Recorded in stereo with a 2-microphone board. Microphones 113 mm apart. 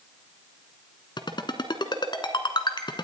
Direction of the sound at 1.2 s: 45° left (ahead or behind).